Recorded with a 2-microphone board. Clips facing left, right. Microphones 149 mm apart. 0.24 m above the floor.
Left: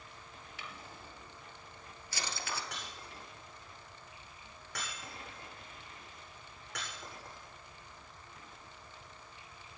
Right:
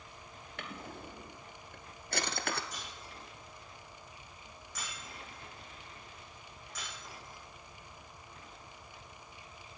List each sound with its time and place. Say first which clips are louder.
0.6 s a drawer: right 7 dB; 60° right (ahead or behind), 1.4 m
2.7 s breaking glass: even; 70° left (ahead or behind), 8 m